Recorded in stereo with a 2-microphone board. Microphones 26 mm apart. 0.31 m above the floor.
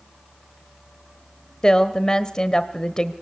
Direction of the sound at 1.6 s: 30° left (ahead or behind).